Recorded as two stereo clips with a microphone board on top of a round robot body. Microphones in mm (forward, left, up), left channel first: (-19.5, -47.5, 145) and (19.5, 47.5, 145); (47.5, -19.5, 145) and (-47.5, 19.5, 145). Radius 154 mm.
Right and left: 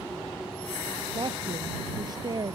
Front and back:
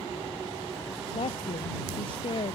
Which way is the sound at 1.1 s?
15° left.